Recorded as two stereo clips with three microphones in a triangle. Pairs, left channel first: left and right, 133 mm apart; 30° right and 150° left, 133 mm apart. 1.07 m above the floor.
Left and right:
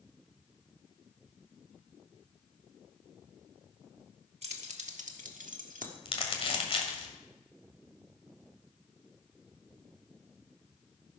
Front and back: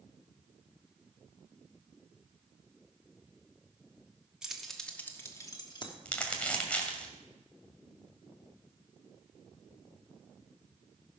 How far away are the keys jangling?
About 1.3 m.